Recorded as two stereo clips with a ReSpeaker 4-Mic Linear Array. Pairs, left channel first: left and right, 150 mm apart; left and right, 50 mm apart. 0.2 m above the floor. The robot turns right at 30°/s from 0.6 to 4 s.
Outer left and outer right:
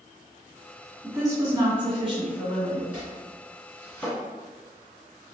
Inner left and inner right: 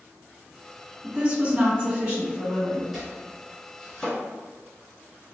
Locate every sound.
1.0 s a woman speaking: 130° right, 1.7 m; by 2.8 s 80° right, 1.7 m
2.9 s chopping: 5° right (ahead or behind), 1.8 m; by 4.2 s 10° left (ahead or behind), 1.8 m